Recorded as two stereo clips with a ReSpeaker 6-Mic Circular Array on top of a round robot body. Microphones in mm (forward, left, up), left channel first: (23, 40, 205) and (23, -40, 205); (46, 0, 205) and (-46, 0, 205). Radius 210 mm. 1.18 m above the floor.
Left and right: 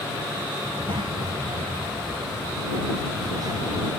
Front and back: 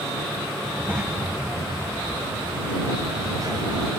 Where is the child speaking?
100° right; by 3.9 s 135° right.